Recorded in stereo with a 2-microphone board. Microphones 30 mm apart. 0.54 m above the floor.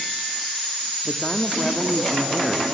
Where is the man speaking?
20° left (ahead or behind), 0.6 m.